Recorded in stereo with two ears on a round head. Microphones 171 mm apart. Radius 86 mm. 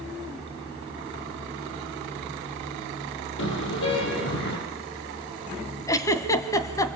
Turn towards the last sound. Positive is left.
turn(degrees=15)  # may be behind; listen again after turning